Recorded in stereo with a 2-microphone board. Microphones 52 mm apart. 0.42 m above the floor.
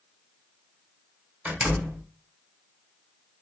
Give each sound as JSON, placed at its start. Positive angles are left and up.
{"t": 1.4, "sound": "a door slam", "side_deg": -20, "distance_m": 1.8}